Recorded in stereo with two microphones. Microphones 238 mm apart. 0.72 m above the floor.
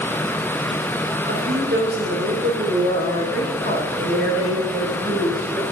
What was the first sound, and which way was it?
A woman speaking, 45° right (ahead or behind).